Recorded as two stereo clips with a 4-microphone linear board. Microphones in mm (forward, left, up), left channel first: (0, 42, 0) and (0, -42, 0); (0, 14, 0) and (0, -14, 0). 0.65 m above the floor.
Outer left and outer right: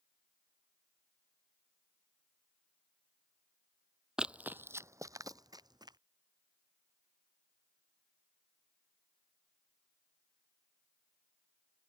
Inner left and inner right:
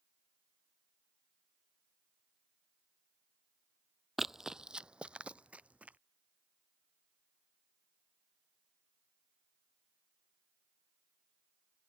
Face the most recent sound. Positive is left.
turn(degrees=-55)  # may be behind; listen again after turning